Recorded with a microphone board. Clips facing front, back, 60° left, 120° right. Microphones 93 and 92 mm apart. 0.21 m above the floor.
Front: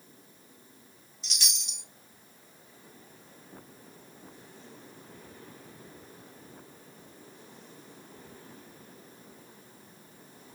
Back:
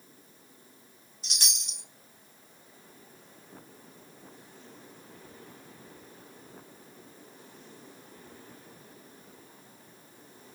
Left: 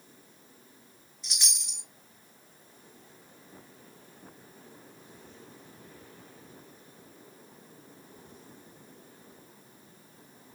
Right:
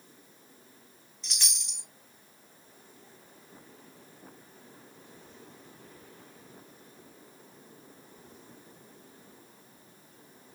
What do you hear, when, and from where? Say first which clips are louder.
1.2 s a chime: even, left 1 dB; 135° left, 1.1 m